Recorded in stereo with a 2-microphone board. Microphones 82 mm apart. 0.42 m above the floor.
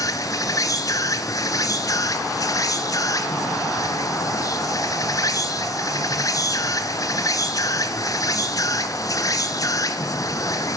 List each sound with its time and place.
0.0 s an insect: 45° left (ahead or behind), 0.9 m